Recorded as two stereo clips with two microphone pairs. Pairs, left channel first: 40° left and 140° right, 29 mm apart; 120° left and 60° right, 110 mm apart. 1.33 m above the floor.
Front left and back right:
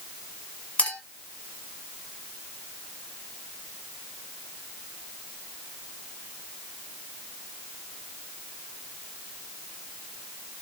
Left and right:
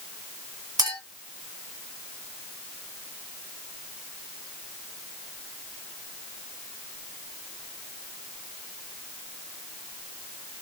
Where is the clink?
5° right, 1.1 m.